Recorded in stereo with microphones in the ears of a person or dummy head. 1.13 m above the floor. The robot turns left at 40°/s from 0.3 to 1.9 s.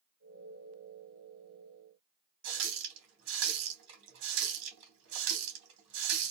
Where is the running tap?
70° right (ahead or behind), 1.2 m.